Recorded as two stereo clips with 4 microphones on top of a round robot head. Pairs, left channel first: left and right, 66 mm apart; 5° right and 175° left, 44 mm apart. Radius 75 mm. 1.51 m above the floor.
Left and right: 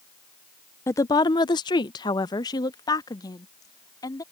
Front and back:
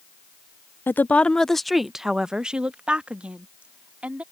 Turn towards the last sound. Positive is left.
turn(degrees=120)